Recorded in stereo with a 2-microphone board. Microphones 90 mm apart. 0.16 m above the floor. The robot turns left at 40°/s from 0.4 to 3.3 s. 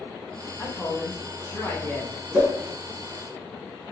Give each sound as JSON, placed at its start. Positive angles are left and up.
{"t": 0.6, "sound": "a man speaking", "side_deg": 20, "distance_m": 1.1}
{"t": 2.3, "sound": "a whoosh", "side_deg": -20, "distance_m": 1.6}